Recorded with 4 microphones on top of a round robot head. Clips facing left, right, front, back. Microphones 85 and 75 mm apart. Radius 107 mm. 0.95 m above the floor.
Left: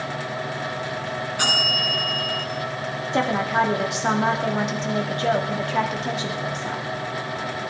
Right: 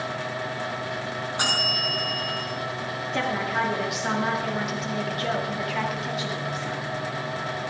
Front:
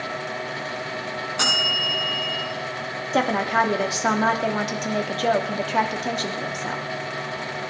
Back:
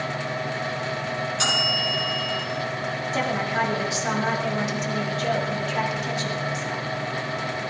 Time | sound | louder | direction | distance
1.4 | a bell | left 2 dB, front 3 dB | 20° right | 6 m
3.1 | a woman speaking | left 5 dB, front 5 dB | 30° left | 2 m